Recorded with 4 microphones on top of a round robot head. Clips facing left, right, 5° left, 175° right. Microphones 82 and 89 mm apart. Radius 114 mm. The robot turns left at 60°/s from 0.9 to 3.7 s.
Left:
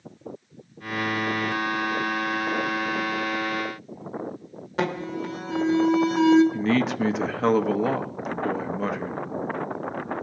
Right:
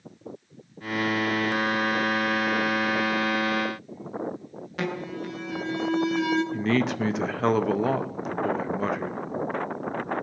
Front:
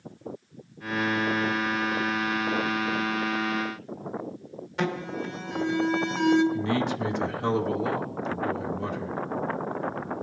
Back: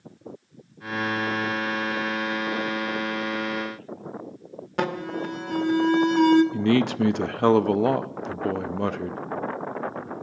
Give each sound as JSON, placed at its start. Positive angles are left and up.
{"t": 4.8, "sound": "an alarm", "azimuth_deg": 150, "distance_m": 1.4}
{"t": 6.5, "sound": "a man speaking", "azimuth_deg": 180, "distance_m": 0.7}